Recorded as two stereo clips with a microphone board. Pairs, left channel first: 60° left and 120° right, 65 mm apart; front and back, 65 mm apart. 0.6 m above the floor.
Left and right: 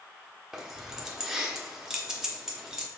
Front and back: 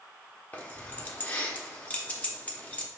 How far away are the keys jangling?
About 0.7 m.